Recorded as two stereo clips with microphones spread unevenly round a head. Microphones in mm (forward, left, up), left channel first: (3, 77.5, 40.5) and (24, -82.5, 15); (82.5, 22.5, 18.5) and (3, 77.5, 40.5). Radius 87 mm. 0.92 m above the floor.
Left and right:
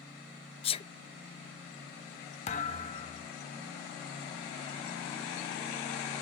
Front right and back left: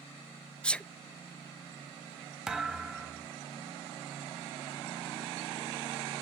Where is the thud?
75° left, 0.7 m.